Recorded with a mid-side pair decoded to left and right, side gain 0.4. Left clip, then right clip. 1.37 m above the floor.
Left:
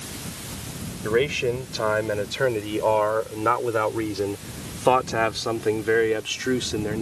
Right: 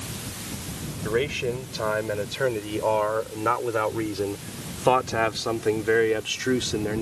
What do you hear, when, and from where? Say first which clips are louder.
1.1 s a man speaking: left 3 dB; 30° left; by 7.0 s straight ahead